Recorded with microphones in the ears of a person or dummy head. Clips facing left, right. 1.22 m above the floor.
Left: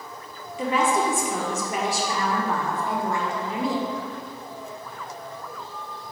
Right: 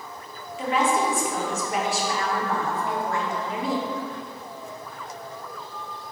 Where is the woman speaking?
80° left, 0.8 m.